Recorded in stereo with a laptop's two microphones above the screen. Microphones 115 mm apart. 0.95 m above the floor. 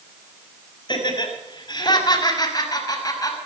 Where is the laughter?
40° left (ahead or behind), 6 m; by 3.4 s 30° left (ahead or behind), 6 m.